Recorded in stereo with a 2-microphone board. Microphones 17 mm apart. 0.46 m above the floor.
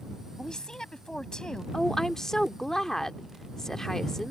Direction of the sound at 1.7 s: 30° left (ahead or behind).